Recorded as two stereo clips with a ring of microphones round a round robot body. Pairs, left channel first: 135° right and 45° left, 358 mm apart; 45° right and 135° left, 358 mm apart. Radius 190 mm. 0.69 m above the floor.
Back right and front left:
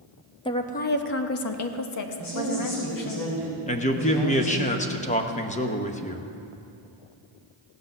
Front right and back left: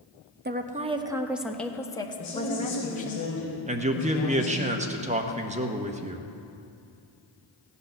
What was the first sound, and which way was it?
A woman speaking, 160° left.